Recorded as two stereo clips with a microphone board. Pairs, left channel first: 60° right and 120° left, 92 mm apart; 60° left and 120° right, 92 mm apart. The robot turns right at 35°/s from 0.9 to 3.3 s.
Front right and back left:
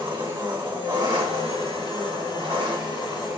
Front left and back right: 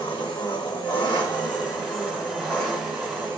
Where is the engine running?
90° left, 1.2 m; by 3.4 s 170° left, 1.2 m.